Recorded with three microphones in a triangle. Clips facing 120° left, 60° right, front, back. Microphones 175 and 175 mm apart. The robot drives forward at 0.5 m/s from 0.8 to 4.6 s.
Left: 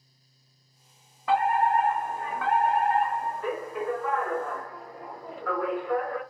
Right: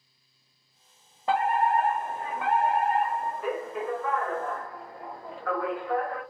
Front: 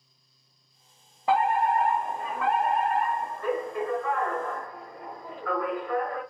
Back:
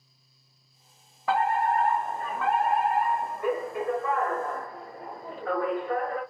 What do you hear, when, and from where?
1.3 s a fire alarm: 35° right, 1.6 m; by 6.2 s 155° right, 1.8 m